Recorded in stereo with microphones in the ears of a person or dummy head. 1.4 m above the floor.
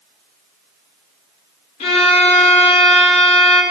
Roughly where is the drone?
No drone in this recording.